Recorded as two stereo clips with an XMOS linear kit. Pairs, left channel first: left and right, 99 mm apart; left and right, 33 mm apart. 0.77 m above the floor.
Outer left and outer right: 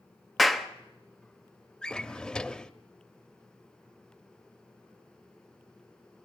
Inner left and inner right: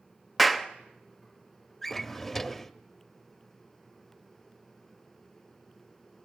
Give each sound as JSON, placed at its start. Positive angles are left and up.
{"t": 0.4, "sound": "a clap", "side_deg": 0, "distance_m": 0.9}
{"t": 1.8, "sound": "a drawer", "side_deg": 10, "distance_m": 0.6}